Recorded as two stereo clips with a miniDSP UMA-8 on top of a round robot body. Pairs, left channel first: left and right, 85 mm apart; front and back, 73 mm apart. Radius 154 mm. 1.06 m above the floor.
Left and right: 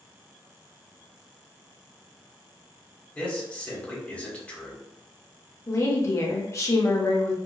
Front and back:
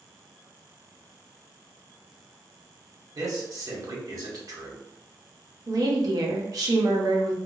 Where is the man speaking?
160° left, 1.2 m.